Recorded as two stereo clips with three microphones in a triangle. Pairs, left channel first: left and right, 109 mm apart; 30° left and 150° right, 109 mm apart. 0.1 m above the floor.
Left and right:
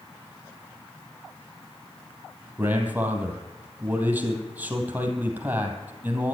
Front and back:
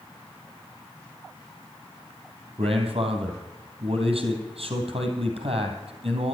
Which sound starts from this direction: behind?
A man speaking, at 2.6 s.